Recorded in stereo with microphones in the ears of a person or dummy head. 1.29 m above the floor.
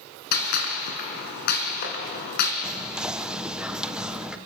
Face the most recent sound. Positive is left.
turn(degrees=-15)  # may be behind; listen again after turning